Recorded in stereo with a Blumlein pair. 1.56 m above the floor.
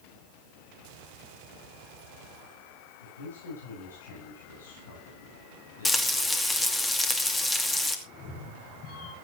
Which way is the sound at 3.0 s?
70° left.